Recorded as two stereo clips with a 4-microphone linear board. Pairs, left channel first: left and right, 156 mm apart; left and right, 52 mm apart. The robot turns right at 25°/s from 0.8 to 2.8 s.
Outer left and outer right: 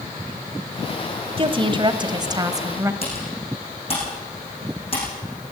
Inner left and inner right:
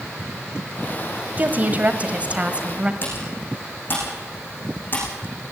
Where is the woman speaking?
70° right, 1.3 m; by 2.9 s 35° right, 1.3 m.